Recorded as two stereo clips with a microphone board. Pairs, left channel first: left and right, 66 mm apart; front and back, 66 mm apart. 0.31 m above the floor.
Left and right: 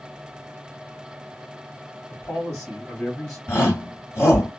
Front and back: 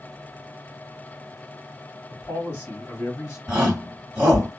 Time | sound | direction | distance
2.1 | a man speaking | 60° left | 1.7 m
3.5 | a shout | 115° left | 2 m